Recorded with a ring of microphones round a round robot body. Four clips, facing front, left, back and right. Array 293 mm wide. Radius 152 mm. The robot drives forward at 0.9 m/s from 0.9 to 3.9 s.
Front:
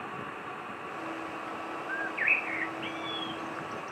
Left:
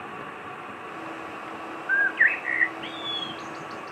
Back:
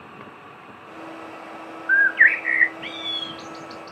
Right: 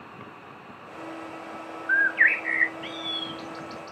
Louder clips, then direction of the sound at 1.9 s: Right 1 dB, back 17 dB; 170° right.